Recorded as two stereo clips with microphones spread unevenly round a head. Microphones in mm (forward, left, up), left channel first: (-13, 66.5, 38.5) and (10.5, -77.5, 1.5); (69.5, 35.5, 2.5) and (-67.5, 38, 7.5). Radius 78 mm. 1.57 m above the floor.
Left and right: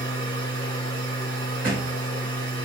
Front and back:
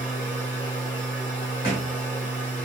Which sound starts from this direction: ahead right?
A machine running, at 0.0 s.